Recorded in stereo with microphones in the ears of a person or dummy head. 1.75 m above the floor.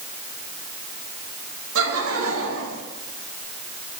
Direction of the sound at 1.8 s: 80° right.